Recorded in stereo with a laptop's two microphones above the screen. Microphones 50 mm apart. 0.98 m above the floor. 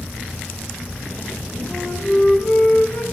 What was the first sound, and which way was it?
A flute, 90° left.